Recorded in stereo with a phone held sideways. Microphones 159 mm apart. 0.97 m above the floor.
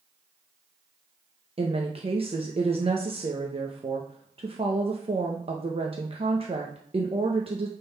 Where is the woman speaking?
40° right (ahead or behind), 0.9 m.